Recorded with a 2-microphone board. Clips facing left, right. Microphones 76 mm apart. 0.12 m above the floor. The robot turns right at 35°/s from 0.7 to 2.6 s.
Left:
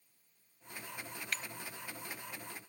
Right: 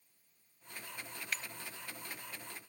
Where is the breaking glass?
5° right (ahead or behind); by 1.4 s centre (ahead or behind).